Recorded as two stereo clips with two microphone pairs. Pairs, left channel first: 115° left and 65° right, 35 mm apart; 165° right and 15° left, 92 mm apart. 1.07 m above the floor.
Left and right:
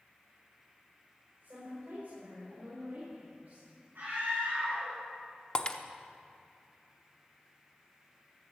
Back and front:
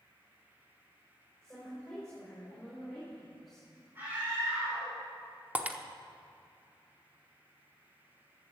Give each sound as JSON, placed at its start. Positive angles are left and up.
{"t": 1.4, "sound": "a woman speaking", "azimuth_deg": -85, "distance_m": 4.5}
{"t": 4.0, "sound": "a scream", "azimuth_deg": -50, "distance_m": 3.5}
{"t": 5.5, "sound": "breaking glass", "azimuth_deg": 80, "distance_m": 0.7}